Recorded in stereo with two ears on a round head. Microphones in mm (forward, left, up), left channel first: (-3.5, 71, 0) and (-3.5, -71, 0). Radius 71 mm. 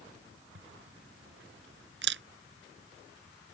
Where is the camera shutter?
80° right.